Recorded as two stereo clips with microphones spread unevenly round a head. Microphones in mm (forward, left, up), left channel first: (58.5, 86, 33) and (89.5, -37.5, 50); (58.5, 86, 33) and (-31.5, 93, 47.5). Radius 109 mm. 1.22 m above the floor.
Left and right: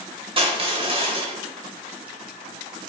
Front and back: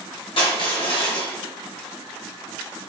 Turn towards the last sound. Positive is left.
turn(degrees=-30)